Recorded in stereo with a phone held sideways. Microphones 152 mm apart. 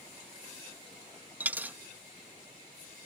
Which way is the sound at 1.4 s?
10° right (ahead or behind).